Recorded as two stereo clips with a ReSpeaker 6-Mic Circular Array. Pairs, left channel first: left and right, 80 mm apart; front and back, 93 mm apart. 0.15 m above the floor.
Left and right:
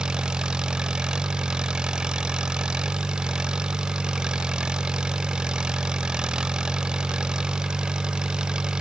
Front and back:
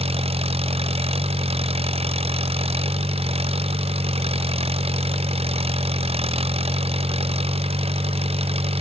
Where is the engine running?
170° right.